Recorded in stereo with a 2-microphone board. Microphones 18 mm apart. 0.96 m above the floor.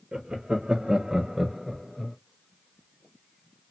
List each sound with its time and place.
0.1 s laughter: 60° right (ahead or behind), 0.7 m; by 2.2 s 5° left (ahead or behind), 0.7 m